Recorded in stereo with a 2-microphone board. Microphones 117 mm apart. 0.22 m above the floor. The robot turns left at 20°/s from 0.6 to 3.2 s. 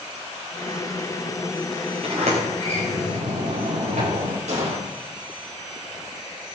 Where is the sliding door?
60° right (ahead or behind), 10 m; by 4.4 s 85° right, 10 m.